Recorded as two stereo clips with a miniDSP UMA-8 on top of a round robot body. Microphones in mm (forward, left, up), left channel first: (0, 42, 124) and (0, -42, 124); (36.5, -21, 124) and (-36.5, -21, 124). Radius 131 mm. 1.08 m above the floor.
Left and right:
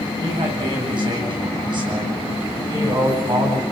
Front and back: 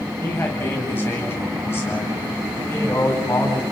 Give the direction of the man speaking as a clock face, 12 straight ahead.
2 o'clock.